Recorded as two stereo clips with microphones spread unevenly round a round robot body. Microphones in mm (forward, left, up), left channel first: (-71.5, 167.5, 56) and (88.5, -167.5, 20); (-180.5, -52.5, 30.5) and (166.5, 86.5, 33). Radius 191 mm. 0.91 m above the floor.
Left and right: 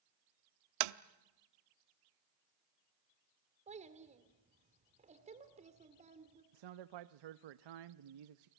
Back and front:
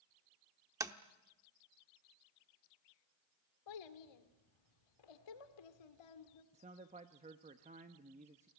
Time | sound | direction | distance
0.8 | tapping | 60° right | 0.8 m
3.7 | a child speaking | 140° right | 2.5 m
6.5 | a man speaking | 50° right | 0.8 m